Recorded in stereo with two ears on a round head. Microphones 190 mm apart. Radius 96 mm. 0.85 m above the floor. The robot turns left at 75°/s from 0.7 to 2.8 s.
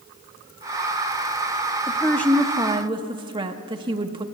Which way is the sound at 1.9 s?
35° left.